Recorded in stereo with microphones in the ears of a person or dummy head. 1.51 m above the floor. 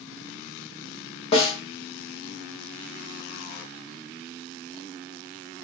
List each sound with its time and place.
1.3 s a snare drum: 35° left (ahead or behind), 0.9 m